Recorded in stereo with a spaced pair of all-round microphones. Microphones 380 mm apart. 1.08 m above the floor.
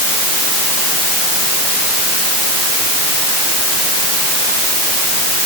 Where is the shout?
No shout in this recording.